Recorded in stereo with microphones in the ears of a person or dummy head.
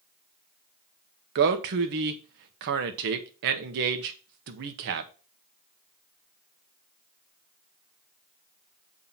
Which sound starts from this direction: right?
A man speaking, at 1.4 s.